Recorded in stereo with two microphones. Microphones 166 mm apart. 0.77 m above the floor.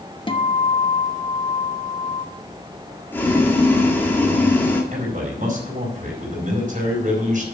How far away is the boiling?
About 1.9 m.